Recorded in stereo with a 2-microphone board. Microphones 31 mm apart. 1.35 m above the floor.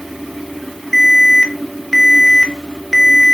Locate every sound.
0.9 s an alarm: 5° left (ahead or behind), 1.2 m